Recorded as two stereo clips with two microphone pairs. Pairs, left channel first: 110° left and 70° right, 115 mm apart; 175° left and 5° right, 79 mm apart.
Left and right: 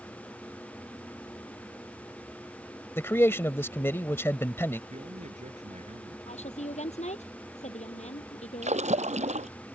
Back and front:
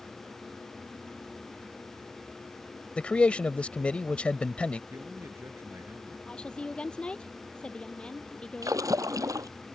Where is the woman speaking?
95° left.